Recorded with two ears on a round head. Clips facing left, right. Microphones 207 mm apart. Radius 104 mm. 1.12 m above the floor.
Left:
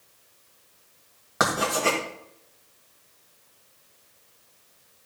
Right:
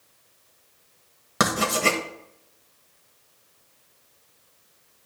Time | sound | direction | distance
1.4 | writing | 45° right (ahead or behind) | 1.5 m